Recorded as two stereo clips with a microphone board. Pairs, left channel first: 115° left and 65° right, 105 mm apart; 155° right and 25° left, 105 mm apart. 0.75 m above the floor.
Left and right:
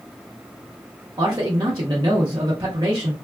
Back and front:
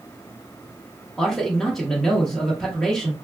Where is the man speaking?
75° right, 0.8 m.